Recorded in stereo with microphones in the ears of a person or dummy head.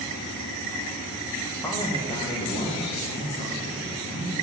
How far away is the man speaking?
About 1.3 m.